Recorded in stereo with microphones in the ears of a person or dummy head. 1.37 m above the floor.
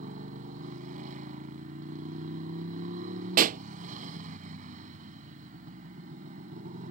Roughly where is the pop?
Right.